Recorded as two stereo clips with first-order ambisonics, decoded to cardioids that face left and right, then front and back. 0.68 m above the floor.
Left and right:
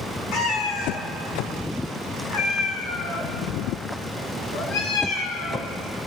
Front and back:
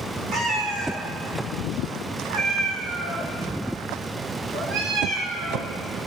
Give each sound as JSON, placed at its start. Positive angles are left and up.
{"t": 0.3, "sound": "a cat meowing", "azimuth_deg": 130, "distance_m": 1.7}